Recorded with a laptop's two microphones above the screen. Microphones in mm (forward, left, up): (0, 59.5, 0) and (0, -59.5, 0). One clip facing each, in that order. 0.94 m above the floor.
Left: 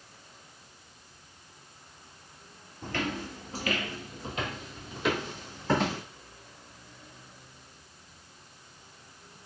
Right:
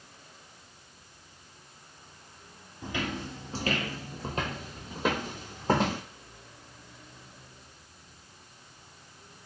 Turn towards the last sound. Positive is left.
turn(degrees=-45)  # may be behind; listen again after turning